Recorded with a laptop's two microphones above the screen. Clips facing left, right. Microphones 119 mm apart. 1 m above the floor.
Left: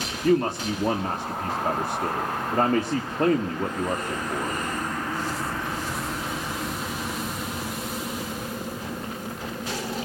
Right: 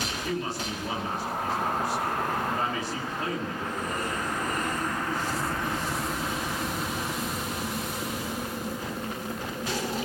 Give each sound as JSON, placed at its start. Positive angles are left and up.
{"t": 0.2, "sound": "a man speaking", "side_deg": 55, "distance_m": 1.8}